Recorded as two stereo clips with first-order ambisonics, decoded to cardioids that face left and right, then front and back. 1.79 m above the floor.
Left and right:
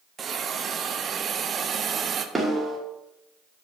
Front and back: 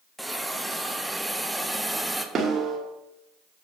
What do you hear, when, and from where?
0.2 s a hiss: 95° right, 0.5 m
2.4 s a snare drum: 160° right, 1.5 m